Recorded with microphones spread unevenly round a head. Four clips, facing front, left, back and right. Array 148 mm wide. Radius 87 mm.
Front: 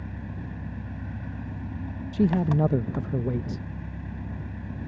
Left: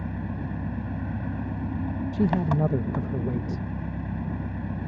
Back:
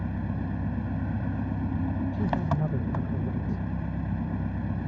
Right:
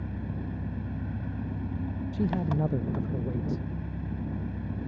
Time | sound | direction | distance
0.0 | an engine running | 125° left | ?
2.1 | a man speaking | 45° left | ?